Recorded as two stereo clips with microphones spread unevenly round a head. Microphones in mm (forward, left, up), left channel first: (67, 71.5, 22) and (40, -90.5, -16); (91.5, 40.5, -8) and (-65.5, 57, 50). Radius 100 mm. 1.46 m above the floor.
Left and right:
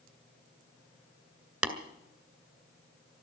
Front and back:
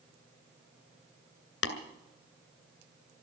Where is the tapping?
15° right, 2 m.